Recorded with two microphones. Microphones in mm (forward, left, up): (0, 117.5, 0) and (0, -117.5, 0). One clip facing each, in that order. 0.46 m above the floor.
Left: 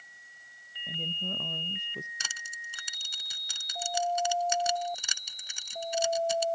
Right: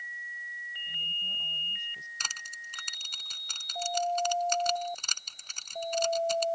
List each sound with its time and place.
0.9 s a woman speaking: 70° left (ahead or behind); by 2.1 s 65° left (ahead or behind)
2.2 s crushing: 10° left (ahead or behind)